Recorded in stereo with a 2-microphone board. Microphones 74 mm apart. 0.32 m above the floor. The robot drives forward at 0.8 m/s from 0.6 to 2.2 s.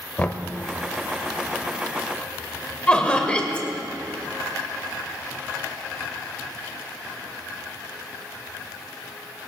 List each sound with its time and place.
0.2 s knocking: 25° left (ahead or behind), 0.6 m
2.9 s laughter: 15° left (ahead or behind), 1.3 m